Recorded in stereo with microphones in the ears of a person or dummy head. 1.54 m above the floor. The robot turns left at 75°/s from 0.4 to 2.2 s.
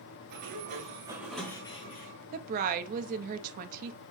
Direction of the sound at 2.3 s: 50° right (ahead or behind).